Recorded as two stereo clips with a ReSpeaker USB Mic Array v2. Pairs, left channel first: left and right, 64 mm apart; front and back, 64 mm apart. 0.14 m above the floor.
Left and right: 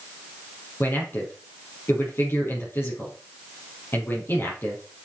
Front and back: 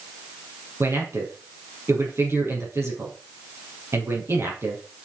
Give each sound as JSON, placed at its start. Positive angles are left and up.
{"t": 0.8, "sound": "a man speaking", "azimuth_deg": 140, "distance_m": 4.0}